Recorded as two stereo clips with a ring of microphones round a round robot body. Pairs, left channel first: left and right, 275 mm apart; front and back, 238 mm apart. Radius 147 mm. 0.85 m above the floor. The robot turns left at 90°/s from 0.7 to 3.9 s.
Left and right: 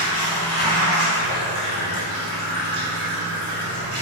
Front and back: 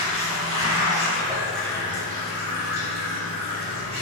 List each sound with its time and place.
0.0 s running water: 165° left, 1.1 m; by 4.0 s 125° right, 1.1 m